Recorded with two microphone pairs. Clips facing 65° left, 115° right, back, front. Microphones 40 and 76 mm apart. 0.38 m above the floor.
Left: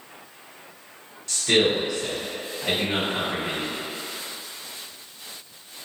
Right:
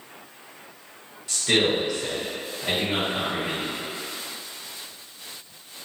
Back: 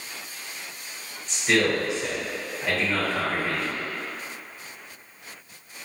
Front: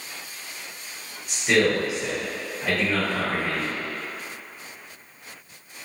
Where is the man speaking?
65° right, 1.2 m; by 3.8 s 90° left, 1.6 m.